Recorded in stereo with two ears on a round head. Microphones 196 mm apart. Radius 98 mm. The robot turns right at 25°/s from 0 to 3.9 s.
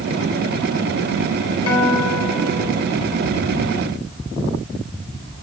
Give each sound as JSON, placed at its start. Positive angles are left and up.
{"t": 1.7, "sound": "a guitar", "azimuth_deg": 90, "distance_m": 3.0}